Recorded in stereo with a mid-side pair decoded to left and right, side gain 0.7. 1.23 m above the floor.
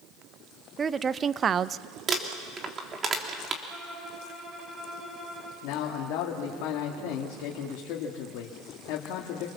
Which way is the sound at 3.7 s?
25° right.